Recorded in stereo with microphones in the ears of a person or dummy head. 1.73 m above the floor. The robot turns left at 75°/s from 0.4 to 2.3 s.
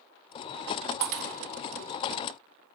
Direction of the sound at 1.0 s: 50° right (ahead or behind).